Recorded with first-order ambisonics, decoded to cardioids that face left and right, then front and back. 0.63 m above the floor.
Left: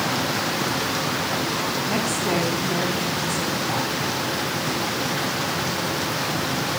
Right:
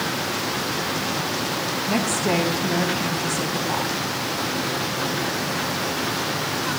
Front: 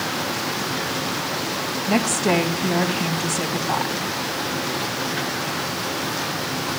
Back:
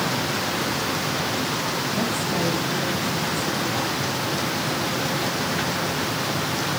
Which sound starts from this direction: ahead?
A woman speaking, at 1.9 s.